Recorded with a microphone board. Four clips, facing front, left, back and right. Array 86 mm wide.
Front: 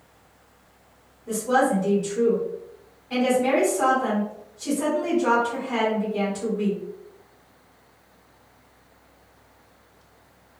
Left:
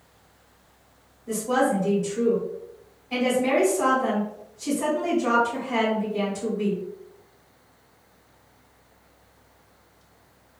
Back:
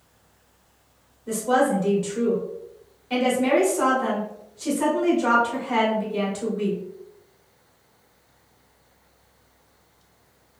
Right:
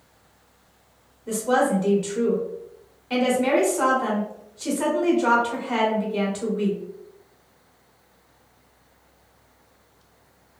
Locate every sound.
1.3 s a woman speaking: 110° right, 1.1 m